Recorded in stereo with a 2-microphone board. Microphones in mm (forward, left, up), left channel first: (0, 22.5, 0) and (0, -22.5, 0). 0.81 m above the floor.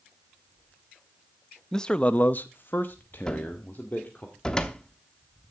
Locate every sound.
1.7 s a man speaking: 15° left (ahead or behind), 0.7 m; by 4.3 s 40° left (ahead or behind), 2 m
3.3 s a cupboard door: 15° left (ahead or behind), 1.0 m